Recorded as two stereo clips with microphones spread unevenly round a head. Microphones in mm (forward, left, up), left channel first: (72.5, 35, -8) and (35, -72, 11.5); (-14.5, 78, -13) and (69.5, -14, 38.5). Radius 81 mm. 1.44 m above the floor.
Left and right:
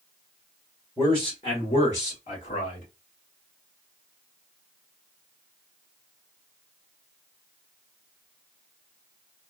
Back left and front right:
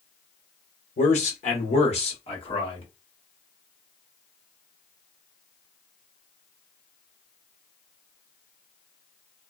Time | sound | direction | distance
1.0 | a man speaking | 135° left | 1.3 m